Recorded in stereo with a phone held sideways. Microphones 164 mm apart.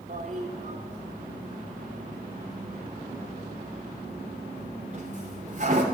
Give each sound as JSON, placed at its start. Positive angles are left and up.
{"t": 0.1, "sound": "a toilet flushing", "side_deg": -45, "distance_m": 2.5}